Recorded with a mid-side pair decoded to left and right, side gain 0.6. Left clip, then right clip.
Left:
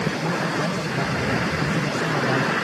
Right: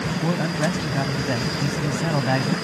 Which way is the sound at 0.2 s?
20° right.